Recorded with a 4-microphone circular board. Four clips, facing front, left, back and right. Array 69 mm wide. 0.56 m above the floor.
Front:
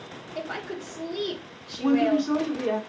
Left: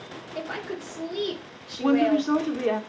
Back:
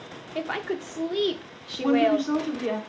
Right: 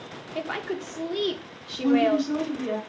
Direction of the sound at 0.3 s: 155° right.